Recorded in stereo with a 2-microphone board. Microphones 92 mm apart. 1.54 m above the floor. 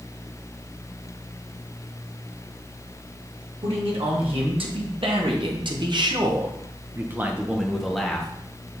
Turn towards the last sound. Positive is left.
turn(degrees=10)  # may be behind; listen again after turning